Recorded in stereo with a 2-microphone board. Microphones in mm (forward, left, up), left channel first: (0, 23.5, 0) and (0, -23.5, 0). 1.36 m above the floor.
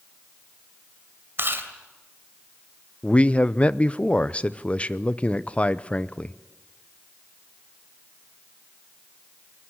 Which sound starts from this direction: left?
A man speaking, at 3.0 s.